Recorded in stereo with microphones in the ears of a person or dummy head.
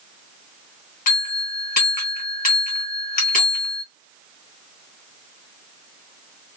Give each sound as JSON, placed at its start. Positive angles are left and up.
{"t": 1.1, "sound": "a bell", "side_deg": 40, "distance_m": 0.9}